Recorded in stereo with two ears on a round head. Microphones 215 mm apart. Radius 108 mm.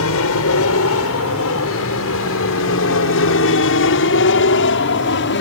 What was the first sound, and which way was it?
An aircraft, 65° left (ahead or behind).